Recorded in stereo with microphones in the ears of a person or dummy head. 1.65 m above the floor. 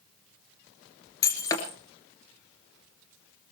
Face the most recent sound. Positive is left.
turn(degrees=20)  # may be behind; listen again after turning